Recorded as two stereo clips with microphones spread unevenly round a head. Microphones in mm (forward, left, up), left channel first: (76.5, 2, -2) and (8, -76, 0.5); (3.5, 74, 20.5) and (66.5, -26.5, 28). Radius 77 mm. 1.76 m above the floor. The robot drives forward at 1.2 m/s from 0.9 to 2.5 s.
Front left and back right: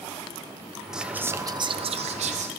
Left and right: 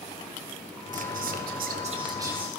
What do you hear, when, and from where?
0.9 s whispering: 50° right, 1.3 m; by 2.5 s 135° right, 1.4 m